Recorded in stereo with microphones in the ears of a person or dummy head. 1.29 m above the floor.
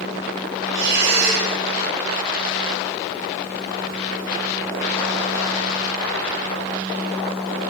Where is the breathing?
60° right (ahead or behind), 5 m.